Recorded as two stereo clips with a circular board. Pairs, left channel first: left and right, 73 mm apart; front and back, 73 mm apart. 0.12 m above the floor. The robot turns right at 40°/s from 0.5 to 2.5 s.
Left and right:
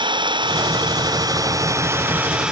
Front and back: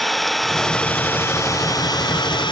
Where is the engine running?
90° right; by 2.5 s 10° right.